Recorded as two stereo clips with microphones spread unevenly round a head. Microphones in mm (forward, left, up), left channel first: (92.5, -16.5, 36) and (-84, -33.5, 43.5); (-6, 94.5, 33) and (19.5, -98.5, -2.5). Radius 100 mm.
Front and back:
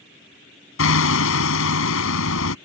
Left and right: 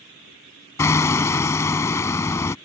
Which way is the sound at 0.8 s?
25° left.